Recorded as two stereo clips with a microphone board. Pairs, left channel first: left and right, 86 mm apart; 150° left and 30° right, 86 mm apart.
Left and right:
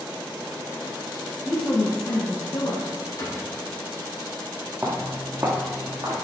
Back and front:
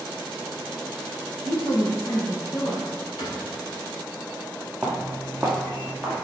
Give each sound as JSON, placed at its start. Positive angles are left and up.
{"t": 1.4, "sound": "a woman speaking", "azimuth_deg": 175, "distance_m": 1.4}
{"t": 3.2, "sound": "a cupboard door", "azimuth_deg": 135, "distance_m": 3.5}
{"t": 4.8, "sound": "footsteps", "azimuth_deg": -125, "distance_m": 1.5}